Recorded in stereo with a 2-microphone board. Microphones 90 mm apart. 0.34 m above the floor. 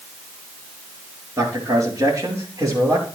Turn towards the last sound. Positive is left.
turn(degrees=-40)  # may be behind; listen again after turning